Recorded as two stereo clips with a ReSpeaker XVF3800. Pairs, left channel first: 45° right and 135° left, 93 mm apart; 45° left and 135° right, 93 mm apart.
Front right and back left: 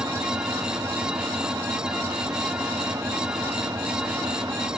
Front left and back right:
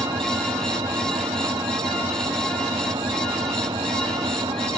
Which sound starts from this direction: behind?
An engine running, at 0.0 s.